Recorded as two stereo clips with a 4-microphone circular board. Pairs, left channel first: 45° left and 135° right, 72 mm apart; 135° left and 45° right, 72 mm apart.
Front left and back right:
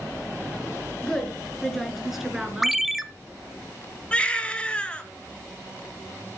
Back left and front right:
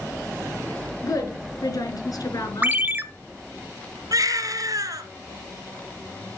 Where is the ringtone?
50° right, 0.7 m.